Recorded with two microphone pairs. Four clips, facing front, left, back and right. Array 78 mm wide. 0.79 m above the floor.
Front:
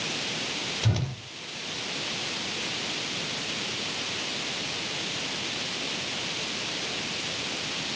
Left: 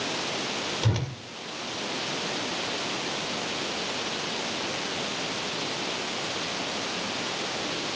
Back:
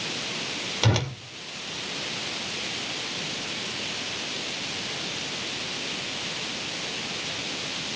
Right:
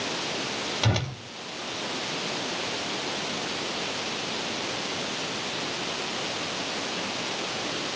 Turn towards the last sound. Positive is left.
turn(degrees=-165)